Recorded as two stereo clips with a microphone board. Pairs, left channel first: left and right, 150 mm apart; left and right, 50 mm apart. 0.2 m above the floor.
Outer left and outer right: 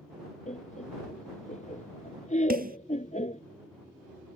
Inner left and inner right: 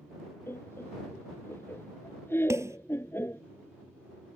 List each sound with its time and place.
0.5 s laughter: 55° left (ahead or behind)
2.5 s a snare drum: 75° right (ahead or behind)